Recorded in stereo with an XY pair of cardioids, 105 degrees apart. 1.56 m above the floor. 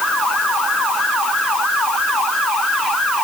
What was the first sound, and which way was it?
Only background noise.